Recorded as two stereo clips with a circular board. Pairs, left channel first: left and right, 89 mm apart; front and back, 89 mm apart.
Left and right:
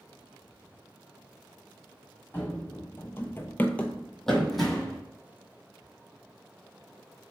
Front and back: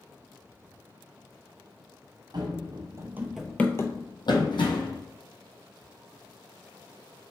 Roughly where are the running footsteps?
Behind left.